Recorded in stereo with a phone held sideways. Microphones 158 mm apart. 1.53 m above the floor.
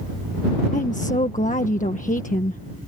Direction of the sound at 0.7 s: 60° left (ahead or behind).